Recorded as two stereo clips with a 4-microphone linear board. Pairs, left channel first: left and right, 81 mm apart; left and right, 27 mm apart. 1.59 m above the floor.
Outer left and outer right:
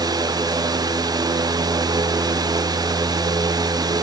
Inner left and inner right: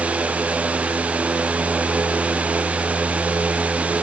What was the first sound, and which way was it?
Only background noise.